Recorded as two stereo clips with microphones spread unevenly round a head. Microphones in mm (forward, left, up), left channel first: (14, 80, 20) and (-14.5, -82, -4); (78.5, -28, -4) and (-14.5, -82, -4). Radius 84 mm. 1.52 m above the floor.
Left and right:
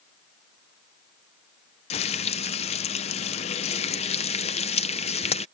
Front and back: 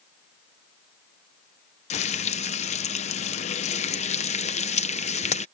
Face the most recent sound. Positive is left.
turn(degrees=30)